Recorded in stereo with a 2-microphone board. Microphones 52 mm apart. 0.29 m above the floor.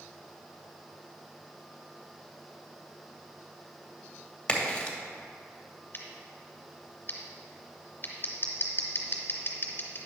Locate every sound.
4.5 s a crack: 15° left (ahead or behind), 1.4 m
5.9 s scissors: 40° left (ahead or behind), 1.9 m